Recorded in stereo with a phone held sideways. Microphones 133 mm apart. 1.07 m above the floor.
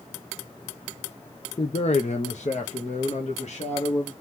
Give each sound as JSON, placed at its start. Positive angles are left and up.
{"t": 1.6, "sound": "a man speaking", "side_deg": 40, "distance_m": 0.7}